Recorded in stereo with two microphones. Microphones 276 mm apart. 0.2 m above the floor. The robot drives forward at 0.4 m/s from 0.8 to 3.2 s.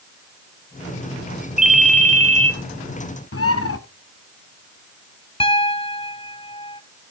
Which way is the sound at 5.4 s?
20° left (ahead or behind).